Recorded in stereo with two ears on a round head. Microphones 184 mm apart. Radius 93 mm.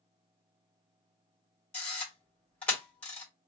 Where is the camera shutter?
5° left (ahead or behind), 2.0 m.